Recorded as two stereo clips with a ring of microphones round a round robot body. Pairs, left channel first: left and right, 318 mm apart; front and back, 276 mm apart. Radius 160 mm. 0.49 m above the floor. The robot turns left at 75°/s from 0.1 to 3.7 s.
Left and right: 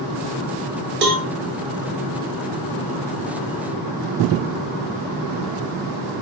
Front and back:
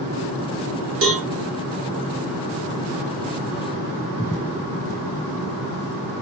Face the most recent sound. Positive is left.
turn(degrees=15)